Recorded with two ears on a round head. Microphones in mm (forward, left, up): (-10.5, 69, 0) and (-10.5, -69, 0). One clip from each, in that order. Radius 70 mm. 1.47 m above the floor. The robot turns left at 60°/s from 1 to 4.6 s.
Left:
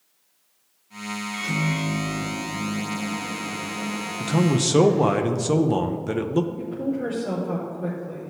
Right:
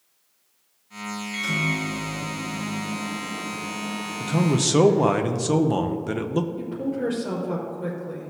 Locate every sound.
1.3 s a microwave: 130° right, 3 m; by 5.2 s 35° left, 3 m
4.2 s a man speaking: 20° left (ahead or behind), 0.5 m; by 6.5 s 5° right (ahead or behind), 0.5 m
6.6 s a woman speaking: 30° right (ahead or behind), 3 m